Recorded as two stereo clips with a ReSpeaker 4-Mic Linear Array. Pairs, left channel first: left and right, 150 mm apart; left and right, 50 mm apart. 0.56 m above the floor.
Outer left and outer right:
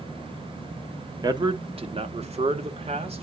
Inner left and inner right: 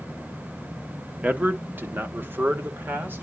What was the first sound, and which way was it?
A man speaking, 25° right (ahead or behind).